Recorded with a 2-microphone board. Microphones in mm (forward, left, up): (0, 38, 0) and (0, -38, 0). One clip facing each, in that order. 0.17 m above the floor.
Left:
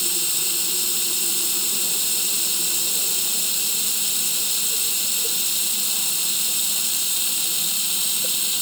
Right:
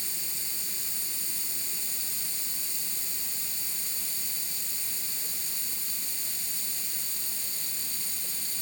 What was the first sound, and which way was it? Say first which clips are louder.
Running water: left 11 dB; 80° left.